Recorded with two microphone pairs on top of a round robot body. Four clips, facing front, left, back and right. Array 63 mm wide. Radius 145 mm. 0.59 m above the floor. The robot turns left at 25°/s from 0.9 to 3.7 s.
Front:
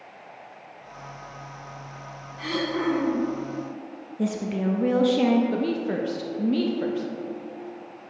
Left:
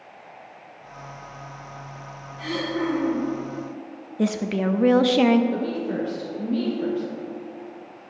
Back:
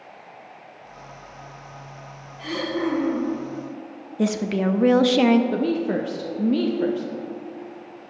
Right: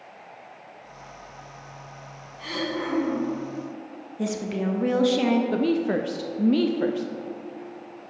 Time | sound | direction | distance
2.4 | throat clearing | 15° left | 3 m
4.2 | a woman speaking | 130° left | 0.7 m
5.5 | a woman speaking | 100° right | 0.8 m